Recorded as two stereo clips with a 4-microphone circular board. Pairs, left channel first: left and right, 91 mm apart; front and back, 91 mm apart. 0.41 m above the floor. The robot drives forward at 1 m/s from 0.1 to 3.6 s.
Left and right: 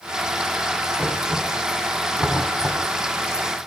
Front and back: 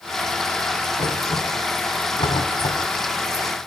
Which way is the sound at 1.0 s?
5° right.